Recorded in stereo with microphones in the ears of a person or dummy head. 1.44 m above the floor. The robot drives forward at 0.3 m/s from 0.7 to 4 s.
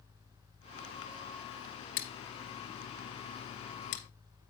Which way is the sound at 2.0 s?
50° left (ahead or behind).